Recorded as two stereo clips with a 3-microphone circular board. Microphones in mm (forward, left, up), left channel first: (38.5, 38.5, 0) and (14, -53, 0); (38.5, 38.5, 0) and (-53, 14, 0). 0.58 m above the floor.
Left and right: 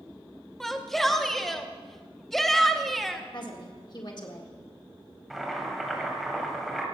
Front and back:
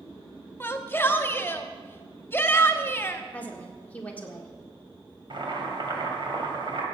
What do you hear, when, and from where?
0.6 s a shout: 10° right, 0.9 m
3.3 s a woman speaking: 85° left, 1.7 m
5.3 s boiling: 165° left, 2 m